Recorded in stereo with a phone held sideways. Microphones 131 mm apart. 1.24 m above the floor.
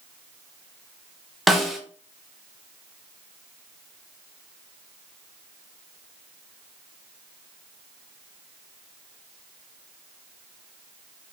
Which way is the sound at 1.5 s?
Centre (ahead or behind).